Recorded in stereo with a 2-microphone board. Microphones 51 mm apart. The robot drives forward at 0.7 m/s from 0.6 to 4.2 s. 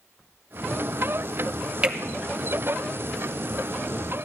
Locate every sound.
1.8 s a finger snap: 20° right (ahead or behind), 1.4 m